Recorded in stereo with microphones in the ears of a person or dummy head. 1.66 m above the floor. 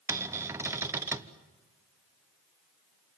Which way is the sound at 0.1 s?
15° right (ahead or behind).